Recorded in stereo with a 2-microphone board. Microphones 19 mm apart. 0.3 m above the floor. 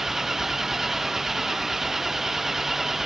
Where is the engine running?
15° right (ahead or behind).